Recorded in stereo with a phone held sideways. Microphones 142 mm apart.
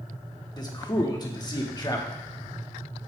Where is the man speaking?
30° left (ahead or behind), 1.2 m.